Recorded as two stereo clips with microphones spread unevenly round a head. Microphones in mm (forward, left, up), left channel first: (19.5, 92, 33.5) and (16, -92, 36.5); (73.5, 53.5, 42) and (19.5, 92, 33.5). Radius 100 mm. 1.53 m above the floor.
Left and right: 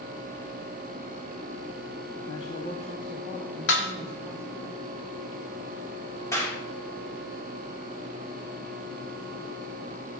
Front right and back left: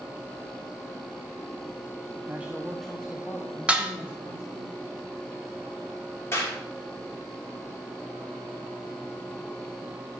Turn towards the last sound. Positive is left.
turn(degrees=15)